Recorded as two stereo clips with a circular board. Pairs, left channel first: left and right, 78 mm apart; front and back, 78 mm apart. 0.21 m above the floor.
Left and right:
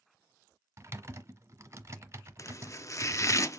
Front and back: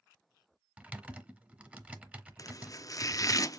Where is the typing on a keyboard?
115° right, 1.0 m.